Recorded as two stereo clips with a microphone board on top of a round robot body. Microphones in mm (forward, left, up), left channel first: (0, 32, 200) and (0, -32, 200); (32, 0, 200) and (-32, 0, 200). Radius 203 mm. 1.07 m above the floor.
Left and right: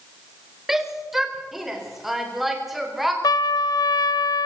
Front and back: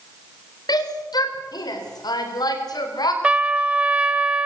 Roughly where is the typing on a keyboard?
I don't hear typing on a keyboard.